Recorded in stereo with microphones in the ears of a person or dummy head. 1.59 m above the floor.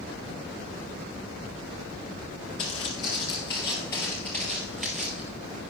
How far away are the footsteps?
About 2.5 m.